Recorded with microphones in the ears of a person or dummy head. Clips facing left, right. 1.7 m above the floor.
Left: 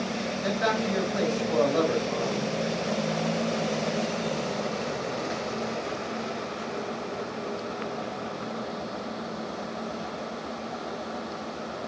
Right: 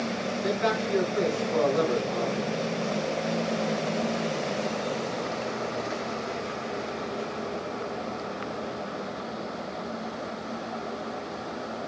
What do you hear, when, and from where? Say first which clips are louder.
0.4 s a man speaking: even; 85° left, 8 m